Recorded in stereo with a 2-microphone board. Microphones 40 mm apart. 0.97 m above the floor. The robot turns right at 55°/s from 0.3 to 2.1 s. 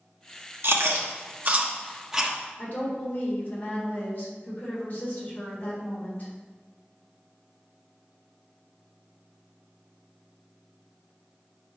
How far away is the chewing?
About 1.1 m.